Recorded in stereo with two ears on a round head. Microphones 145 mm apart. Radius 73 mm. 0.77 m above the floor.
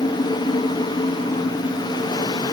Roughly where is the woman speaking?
No woman speaking in this recording.